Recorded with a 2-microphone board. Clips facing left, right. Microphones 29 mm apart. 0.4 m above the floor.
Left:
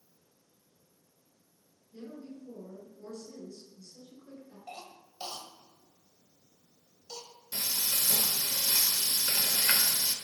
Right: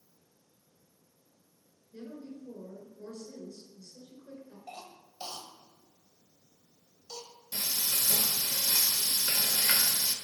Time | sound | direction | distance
1.9 | a woman speaking | 5° right (ahead or behind) | 5.5 m
4.7 | a cough | 10° left (ahead or behind) | 1.5 m
7.5 | frying | 30° left (ahead or behind) | 1.3 m